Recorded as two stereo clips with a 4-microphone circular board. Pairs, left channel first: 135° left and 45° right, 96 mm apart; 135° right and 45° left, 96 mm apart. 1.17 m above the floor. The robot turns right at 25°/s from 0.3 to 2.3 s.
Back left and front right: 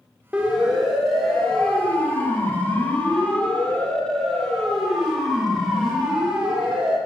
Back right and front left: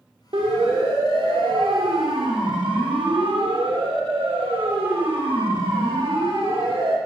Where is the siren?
35° left, 3.5 m.